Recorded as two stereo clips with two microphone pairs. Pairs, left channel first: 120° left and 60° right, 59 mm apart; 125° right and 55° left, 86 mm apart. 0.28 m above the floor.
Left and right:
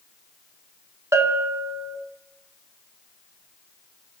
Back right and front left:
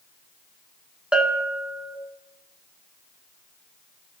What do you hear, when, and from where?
1.1 s a bell: 25° right, 0.7 m